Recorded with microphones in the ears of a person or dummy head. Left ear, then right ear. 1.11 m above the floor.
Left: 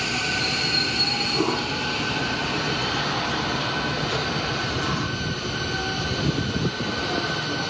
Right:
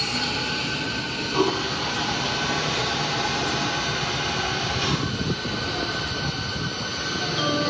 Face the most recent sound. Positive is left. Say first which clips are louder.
# right 1 dB
turn(degrees=-55)  # may be behind; listen again after turning